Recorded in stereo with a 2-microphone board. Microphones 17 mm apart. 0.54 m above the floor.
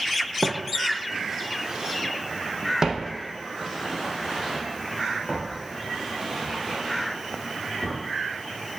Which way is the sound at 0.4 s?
5° left (ahead or behind).